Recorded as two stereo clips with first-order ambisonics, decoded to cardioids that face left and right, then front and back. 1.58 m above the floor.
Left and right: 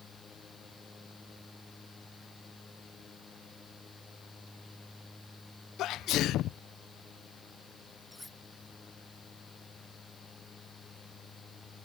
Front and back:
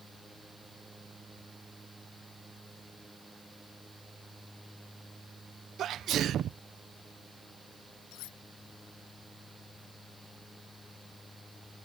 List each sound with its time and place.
5.8 s a sneeze: 130° left
8.1 s cutlery clinking: 10° left